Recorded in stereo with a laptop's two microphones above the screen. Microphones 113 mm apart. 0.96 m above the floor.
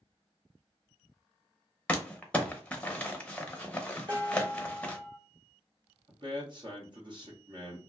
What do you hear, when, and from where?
1.9 s crumpling: 10° left (ahead or behind), 0.7 m
4.1 s dishes clattering: 45° right (ahead or behind), 0.8 m
6.1 s a man speaking: 40° right (ahead or behind), 1.0 m